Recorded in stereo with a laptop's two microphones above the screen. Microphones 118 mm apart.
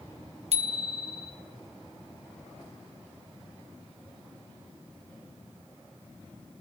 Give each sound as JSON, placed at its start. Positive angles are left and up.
{"t": 0.5, "sound": "a bicycle bell", "side_deg": -65, "distance_m": 3.5}